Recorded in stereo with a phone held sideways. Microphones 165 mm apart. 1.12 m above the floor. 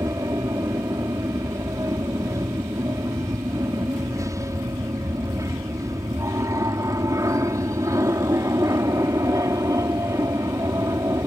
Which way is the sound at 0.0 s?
20° right (ahead or behind).